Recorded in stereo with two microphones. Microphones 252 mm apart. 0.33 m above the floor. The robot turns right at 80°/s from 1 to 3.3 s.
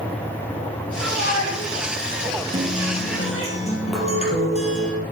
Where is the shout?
60° right (ahead or behind), 4 m; by 3.5 s 55° left (ahead or behind), 4 m.